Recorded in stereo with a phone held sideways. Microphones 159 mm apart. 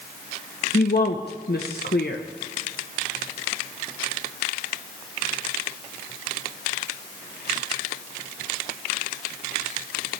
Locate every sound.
0.7 s a woman speaking: 85° left, 1.0 m